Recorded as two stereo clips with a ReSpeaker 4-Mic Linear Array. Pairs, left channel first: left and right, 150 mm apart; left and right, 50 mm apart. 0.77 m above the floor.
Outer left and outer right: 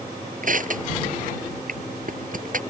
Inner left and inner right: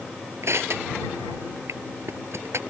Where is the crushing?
65° right (ahead or behind).